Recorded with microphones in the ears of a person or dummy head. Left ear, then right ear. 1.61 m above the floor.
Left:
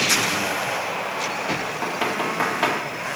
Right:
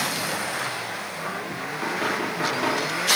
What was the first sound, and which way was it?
Knocking, 30° left (ahead or behind).